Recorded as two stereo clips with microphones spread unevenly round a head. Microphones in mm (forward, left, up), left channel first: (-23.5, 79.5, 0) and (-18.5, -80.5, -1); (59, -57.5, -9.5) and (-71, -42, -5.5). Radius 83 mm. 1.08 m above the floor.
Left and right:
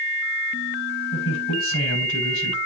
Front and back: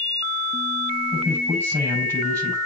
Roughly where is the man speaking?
Left.